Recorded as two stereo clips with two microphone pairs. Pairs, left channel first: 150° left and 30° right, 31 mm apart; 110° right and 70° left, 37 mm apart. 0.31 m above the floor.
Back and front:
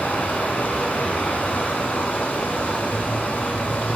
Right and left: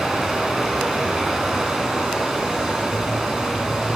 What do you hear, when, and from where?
0.0 s running water: 150° left, 2.5 m